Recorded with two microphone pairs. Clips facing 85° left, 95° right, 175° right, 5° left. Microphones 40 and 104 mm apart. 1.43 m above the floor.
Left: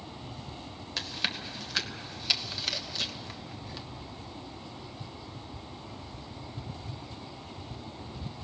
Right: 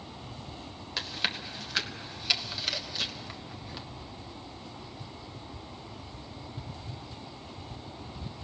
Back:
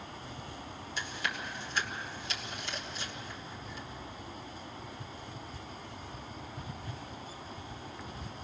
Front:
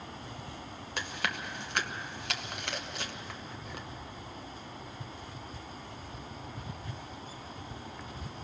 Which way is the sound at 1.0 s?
10° right.